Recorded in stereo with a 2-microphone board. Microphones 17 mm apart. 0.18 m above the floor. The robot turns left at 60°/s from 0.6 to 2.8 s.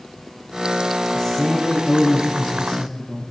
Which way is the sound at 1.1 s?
160° left.